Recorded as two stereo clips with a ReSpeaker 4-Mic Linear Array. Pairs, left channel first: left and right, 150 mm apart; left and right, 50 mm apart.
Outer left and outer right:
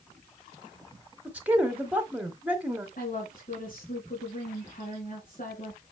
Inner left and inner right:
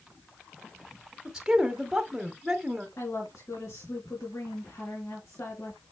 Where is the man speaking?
10° right (ahead or behind), 1.4 m.